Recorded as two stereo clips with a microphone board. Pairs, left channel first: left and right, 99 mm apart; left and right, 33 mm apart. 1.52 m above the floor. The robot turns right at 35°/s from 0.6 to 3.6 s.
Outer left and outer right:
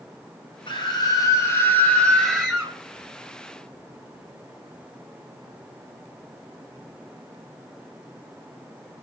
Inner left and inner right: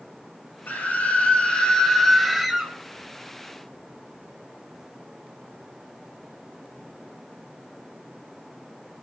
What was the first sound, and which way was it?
A scream, 115° left.